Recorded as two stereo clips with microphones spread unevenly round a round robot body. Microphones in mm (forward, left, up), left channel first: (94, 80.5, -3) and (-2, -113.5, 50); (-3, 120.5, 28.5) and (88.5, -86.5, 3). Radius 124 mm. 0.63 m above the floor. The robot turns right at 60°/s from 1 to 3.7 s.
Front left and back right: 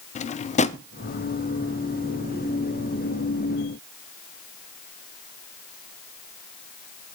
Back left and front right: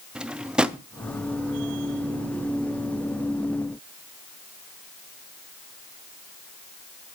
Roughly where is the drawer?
Ahead.